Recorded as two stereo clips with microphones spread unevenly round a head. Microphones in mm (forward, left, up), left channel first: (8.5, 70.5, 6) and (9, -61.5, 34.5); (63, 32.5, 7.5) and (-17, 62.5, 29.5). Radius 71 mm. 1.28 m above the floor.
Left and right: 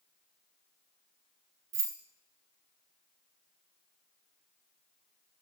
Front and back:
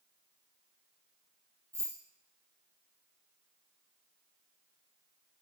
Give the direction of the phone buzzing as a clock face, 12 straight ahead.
No phone buzzing in this recording.